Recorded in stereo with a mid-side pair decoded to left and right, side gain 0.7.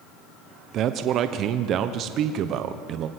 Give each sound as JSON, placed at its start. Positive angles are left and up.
{"t": 0.7, "sound": "a man speaking", "azimuth_deg": -50, "distance_m": 1.2}